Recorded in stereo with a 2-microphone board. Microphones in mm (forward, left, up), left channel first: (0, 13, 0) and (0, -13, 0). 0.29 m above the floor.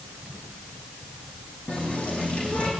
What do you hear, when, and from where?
1.7 s a running tap: 40° left (ahead or behind), 9 m